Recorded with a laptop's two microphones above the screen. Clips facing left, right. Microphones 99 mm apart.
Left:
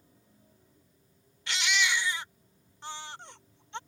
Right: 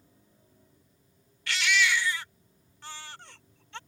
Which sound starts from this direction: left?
A baby crying, at 1.5 s.